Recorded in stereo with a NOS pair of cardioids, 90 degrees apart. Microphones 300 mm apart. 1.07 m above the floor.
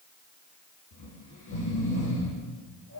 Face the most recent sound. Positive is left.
turn(degrees=55)